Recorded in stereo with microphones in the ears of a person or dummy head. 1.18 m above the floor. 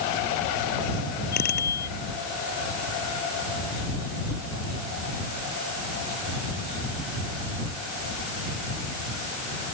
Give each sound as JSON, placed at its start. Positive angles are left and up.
{"t": 1.3, "sound": "a bicycle bell", "side_deg": 50}